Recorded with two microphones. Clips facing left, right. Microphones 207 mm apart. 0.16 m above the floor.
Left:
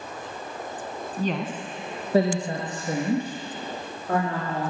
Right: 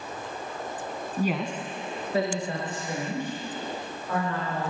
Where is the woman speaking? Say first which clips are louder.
Even; 15° right (ahead or behind), 1.1 m; by 4.7 s 50° left (ahead or behind), 5.5 m.